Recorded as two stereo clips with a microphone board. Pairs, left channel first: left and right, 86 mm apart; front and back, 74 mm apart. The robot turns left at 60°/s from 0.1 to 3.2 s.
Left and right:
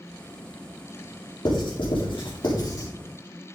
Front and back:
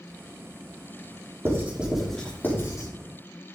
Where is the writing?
125° left, 3.5 m; by 2.9 s 40° left, 3.5 m.